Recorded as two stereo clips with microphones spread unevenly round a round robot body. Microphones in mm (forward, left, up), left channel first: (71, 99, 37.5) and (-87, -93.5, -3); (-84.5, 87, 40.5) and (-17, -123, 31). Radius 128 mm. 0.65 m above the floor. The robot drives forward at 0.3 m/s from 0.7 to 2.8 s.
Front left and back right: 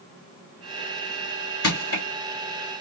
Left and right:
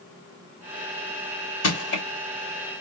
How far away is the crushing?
About 3 m.